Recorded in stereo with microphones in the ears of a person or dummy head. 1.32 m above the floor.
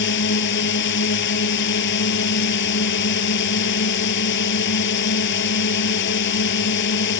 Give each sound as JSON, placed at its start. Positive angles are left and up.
{"t": 0.0, "sound": "a drone", "side_deg": 55}